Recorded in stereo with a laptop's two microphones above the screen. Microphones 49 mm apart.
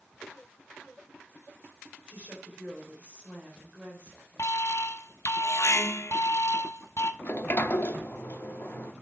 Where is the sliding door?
45° left (ahead or behind), 0.7 m.